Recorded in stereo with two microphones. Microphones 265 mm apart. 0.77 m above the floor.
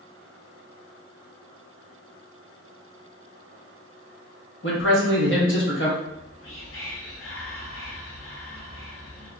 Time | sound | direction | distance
4.6 | a man speaking | 50° left (ahead or behind) | 1.0 m
6.0 | whispering | 55° left (ahead or behind) | 1.1 m